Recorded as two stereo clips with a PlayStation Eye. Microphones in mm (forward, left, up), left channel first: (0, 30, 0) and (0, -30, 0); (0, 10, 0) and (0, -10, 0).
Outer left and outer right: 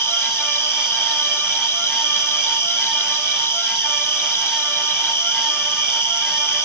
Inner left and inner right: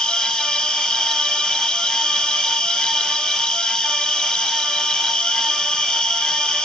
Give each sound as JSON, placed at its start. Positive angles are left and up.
{"t": 0.0, "sound": "an insect", "side_deg": 50, "distance_m": 0.8}